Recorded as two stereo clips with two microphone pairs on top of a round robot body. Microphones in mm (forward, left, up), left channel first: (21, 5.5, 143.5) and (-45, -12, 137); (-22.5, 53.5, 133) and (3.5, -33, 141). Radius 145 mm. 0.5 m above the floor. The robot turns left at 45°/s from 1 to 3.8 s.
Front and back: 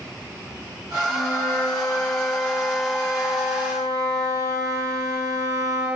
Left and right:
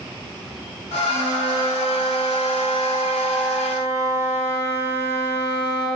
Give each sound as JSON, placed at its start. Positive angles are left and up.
{"t": 1.1, "sound": "a flute", "azimuth_deg": -10, "distance_m": 7.5}